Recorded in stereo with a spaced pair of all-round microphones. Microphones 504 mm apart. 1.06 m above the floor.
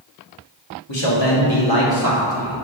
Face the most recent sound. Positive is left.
turn(degrees=35)  # may be behind; listen again after turning